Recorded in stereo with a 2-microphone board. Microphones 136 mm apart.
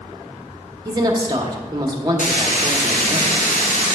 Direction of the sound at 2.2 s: 80° left.